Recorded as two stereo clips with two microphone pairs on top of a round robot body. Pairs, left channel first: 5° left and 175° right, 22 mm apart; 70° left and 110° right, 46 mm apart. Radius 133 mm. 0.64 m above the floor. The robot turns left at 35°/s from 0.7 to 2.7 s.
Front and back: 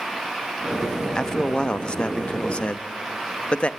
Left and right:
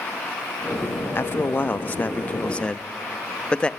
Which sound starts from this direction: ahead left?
A man speaking, at 1.1 s.